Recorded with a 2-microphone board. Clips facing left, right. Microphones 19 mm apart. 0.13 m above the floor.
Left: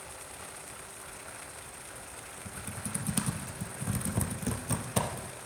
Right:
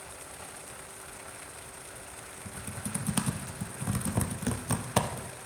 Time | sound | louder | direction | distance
2.5 | typing on a keyboard | right 1 dB | 20° right (ahead or behind) | 0.8 m